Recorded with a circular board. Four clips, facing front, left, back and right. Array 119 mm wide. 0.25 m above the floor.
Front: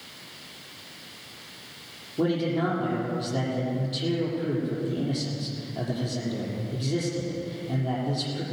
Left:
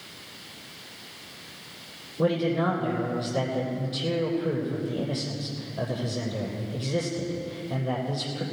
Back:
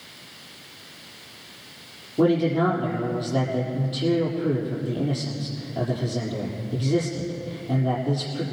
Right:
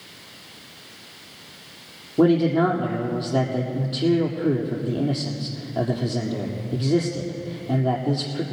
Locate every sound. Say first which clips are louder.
2.2 s a man speaking: right 7 dB, back 5 dB; 105° right, 6.5 m